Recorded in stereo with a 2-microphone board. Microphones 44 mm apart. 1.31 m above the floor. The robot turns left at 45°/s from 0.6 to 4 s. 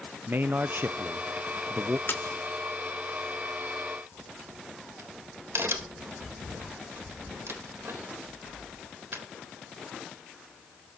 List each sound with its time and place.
0.3 s a man speaking: 70° right, 0.7 m; by 2.0 s 130° right, 0.7 m
2.1 s a splash: 55° left (ahead or behind), 1.5 m; by 2.4 s 70° left (ahead or behind), 1.5 m
4.1 s a crack: 65° right (ahead or behind), 3.5 m